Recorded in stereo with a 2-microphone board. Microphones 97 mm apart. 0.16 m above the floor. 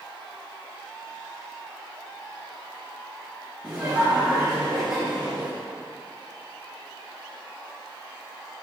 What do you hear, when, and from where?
3.6 s laughter: 10° right (ahead or behind), 3 m